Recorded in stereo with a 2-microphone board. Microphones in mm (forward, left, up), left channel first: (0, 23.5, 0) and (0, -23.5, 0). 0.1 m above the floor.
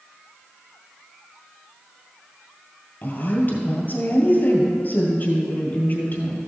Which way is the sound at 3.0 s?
40° left (ahead or behind).